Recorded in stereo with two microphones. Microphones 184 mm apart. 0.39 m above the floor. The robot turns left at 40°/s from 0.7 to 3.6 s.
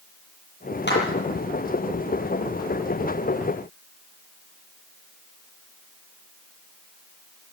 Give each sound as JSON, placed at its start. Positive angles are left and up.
{"t": 0.9, "sound": "a clap", "side_deg": 70, "distance_m": 7.5}